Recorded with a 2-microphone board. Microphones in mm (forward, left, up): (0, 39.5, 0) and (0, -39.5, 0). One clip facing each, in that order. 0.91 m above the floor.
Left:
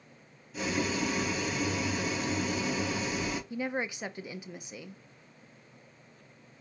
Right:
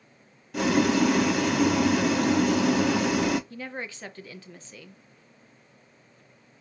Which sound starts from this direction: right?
Boiling, at 0.5 s.